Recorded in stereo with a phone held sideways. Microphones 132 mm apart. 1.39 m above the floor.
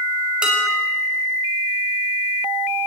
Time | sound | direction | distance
0.4 | dishes clattering | 5° right (ahead or behind) | 5.5 m